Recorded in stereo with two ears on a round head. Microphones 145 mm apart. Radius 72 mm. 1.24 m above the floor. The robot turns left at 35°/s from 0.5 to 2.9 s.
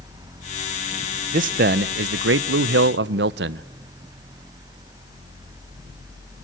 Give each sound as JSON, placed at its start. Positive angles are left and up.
{"t": 1.3, "sound": "a man speaking", "azimuth_deg": -50, "distance_m": 0.6}